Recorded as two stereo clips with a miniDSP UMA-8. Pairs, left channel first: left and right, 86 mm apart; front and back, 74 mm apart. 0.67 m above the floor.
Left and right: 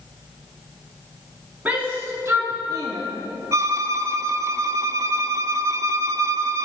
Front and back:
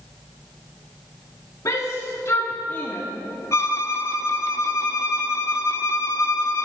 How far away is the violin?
About 0.6 m.